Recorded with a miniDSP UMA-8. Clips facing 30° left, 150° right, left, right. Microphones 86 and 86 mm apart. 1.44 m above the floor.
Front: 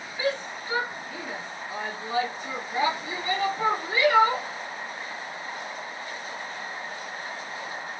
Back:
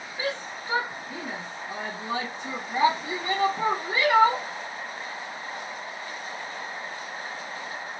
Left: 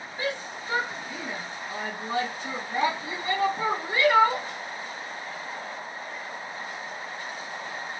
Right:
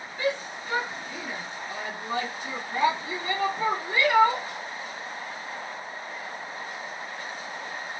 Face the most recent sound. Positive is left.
turn(degrees=165)